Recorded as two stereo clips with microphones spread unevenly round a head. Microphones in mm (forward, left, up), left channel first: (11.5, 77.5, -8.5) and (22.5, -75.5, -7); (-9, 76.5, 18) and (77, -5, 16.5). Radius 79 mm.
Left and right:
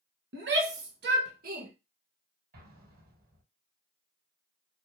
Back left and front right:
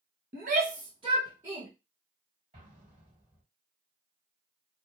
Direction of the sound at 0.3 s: 80° right.